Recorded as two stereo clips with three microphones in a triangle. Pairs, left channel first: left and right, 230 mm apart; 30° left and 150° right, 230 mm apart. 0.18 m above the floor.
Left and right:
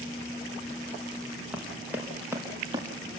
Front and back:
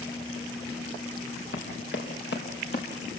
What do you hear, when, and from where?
1.5 s running footsteps: 5° right, 5 m; by 2.9 s 15° right, 4.5 m